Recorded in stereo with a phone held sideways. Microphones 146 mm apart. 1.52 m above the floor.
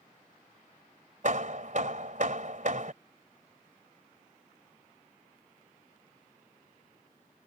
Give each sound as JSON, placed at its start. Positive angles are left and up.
{"t": 1.2, "sound": "hammering", "side_deg": -60}